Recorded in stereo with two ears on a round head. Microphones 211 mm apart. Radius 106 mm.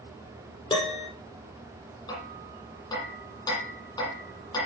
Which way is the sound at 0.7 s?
25° left (ahead or behind).